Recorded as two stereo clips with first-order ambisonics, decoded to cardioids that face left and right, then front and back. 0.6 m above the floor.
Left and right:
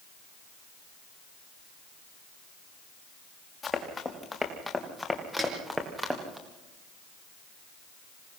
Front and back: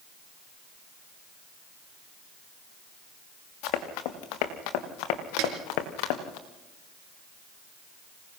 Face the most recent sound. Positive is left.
turn(degrees=-170)